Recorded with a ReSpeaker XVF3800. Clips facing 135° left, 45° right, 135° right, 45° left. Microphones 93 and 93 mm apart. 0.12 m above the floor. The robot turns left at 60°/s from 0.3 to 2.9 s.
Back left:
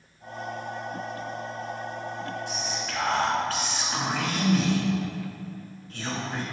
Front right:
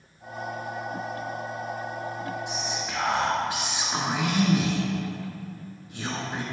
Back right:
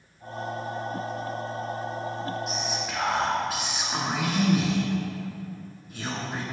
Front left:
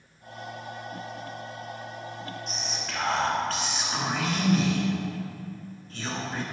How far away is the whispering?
About 1.5 m.